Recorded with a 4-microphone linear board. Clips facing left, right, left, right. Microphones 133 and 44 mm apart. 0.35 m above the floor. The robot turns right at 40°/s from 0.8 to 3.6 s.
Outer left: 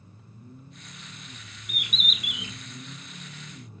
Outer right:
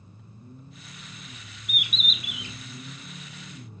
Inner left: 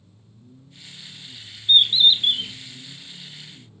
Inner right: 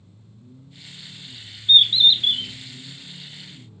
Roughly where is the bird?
Ahead.